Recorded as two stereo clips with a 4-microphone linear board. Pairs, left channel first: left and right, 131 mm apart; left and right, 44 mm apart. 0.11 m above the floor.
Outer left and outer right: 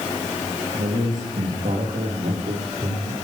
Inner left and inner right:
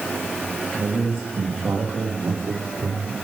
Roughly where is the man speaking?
Right.